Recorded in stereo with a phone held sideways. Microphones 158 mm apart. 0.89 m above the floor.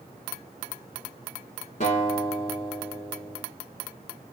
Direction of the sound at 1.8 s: 50° left (ahead or behind).